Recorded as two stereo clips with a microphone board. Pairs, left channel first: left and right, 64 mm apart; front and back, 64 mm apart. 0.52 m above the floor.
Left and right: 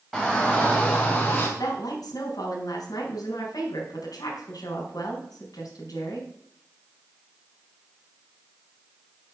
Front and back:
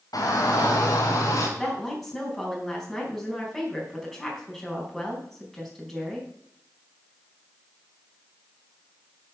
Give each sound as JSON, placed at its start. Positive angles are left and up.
{"t": 0.1, "sound": "a shout", "azimuth_deg": 5, "distance_m": 3.0}
{"t": 1.6, "sound": "a woman speaking", "azimuth_deg": 85, "distance_m": 4.0}